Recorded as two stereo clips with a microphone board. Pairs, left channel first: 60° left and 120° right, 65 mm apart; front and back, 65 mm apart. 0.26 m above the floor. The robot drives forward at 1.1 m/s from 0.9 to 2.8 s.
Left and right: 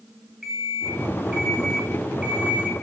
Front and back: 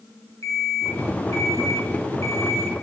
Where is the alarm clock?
35° right, 6.5 m; by 2.7 s 50° right, 5 m.